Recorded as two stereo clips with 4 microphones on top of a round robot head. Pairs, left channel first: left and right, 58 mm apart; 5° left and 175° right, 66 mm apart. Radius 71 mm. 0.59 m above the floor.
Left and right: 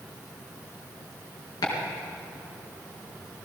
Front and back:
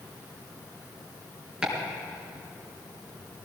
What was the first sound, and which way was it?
Chopping, 105° left.